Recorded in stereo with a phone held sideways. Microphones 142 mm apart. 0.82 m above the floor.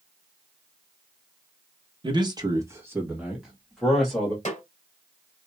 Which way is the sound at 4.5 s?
55° left (ahead or behind).